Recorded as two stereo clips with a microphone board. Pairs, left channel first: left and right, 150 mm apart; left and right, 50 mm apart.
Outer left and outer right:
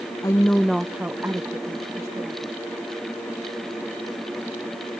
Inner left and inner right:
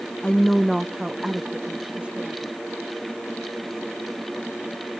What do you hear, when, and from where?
0.2 s a woman speaking: 25° left (ahead or behind); by 2.6 s 30° right (ahead or behind)